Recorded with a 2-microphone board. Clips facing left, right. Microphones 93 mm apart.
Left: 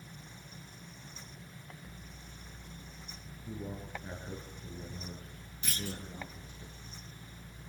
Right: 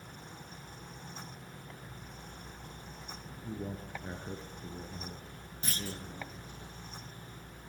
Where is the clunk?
40° right (ahead or behind), 2 m.